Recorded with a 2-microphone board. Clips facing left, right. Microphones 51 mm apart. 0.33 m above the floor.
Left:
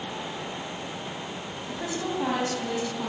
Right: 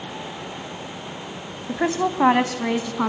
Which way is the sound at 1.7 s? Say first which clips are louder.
Right 9 dB; 55° right (ahead or behind).